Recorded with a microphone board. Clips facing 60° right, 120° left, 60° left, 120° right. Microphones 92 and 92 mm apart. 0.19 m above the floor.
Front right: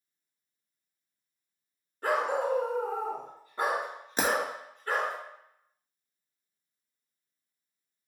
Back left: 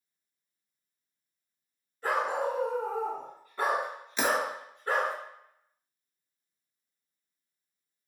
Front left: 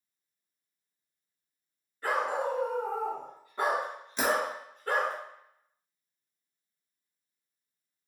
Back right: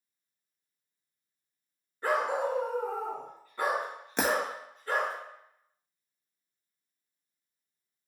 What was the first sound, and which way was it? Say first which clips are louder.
A dog barking: front right 1 dB, back right 1 dB; 60° right.